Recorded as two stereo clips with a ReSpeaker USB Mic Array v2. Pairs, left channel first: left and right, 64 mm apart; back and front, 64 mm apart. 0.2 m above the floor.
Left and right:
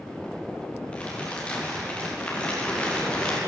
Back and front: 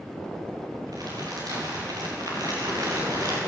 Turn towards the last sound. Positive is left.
turn(degrees=20)